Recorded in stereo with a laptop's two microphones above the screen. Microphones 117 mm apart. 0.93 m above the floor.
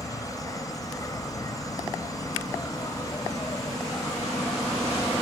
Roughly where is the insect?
Left.